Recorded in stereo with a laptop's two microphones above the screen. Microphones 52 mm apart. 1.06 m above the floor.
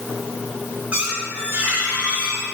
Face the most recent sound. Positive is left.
turn(degrees=-30)  # may be behind; listen again after turning